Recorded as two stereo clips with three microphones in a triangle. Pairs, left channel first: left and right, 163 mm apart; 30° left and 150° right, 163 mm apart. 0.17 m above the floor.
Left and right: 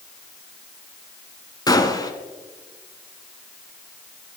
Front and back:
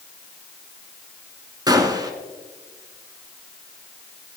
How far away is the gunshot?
About 0.8 m.